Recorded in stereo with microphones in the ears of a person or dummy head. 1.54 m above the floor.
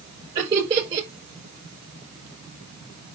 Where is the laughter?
25° right (ahead or behind), 5.5 m.